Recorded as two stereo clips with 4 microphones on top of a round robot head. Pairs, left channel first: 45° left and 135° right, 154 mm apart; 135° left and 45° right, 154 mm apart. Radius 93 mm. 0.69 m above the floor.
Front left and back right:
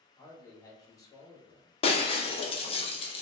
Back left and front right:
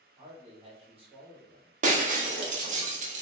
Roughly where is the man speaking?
Ahead.